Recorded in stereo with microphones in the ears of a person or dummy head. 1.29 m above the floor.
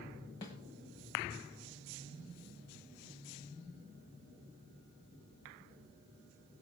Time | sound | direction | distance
0.4 | a snare drum | 15° left (ahead or behind) | 1.1 m